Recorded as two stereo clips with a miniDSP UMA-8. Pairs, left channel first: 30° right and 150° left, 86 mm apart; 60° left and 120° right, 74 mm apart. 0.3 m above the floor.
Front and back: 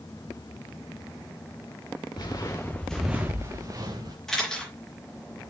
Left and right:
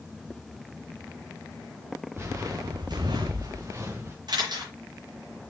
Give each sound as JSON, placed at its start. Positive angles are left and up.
{"t": 2.1, "sound": "footsteps", "azimuth_deg": -65, "distance_m": 1.6}
{"t": 4.3, "sound": "a camera shutter", "azimuth_deg": -115, "distance_m": 4.0}